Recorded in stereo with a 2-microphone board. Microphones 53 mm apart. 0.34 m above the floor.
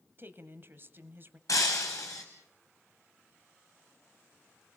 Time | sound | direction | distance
0.2 | a woman speaking | 45° right (ahead or behind) | 1.7 m
1.5 | breaking glass | 80° left | 4 m